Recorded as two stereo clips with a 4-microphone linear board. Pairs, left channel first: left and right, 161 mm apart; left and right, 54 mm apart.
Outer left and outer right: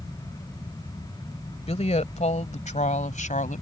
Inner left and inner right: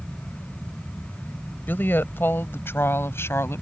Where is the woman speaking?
40° left (ahead or behind); by 3.6 s 55° left (ahead or behind).